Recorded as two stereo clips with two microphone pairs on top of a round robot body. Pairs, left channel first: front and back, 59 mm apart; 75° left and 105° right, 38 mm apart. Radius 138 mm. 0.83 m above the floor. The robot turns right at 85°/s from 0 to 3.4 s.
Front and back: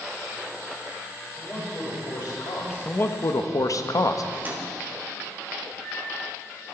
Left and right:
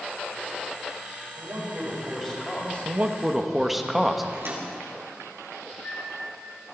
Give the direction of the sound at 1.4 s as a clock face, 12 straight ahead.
3 o'clock.